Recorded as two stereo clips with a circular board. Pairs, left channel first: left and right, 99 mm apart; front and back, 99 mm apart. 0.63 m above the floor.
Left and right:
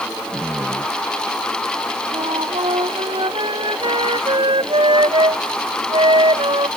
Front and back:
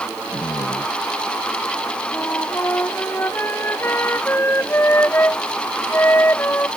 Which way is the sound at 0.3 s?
15° right.